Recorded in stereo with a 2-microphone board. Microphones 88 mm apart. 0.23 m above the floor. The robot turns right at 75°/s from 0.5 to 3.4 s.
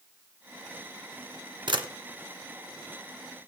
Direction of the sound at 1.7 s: 65° right (ahead or behind).